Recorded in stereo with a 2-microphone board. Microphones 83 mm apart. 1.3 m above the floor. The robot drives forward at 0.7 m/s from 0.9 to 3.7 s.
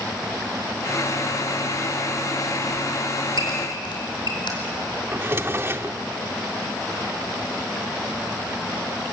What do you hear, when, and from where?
3.4 s a squeak: 80° left, 5 m; by 4.5 s 85° left, 4.5 m
5.1 s a drawer: 30° right (ahead or behind), 1.0 m